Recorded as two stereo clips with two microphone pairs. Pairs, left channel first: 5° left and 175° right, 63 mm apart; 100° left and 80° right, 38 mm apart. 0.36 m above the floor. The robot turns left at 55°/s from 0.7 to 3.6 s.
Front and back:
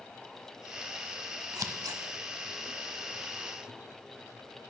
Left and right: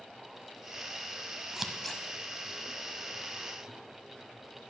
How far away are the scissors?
About 0.8 m.